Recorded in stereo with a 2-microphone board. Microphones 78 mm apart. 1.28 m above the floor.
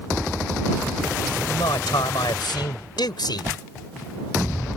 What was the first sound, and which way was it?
A man speaking, 90° left.